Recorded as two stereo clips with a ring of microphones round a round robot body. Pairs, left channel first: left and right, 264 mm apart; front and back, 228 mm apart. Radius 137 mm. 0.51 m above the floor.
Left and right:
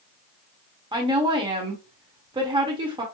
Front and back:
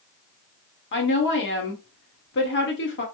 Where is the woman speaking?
20° right, 1.5 m.